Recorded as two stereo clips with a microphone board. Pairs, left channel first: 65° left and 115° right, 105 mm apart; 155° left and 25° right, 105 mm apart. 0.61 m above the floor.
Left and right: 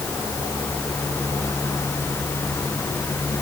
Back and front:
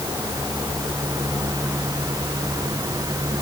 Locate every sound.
Only background noise.